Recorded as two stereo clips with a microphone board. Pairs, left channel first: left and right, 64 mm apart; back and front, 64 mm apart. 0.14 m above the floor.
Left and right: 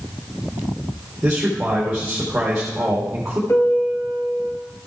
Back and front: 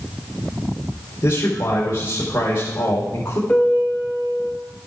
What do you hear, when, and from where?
1.2 s a man speaking: 165° right, 4 m
3.5 s a piano: 120° left, 2.0 m